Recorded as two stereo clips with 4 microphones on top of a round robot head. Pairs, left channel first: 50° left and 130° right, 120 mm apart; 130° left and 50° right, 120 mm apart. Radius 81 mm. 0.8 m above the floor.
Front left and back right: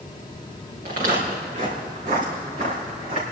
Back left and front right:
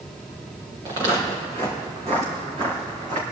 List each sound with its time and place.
0.8 s footsteps: 110° right, 3.5 m; by 3.2 s 95° right, 4.5 m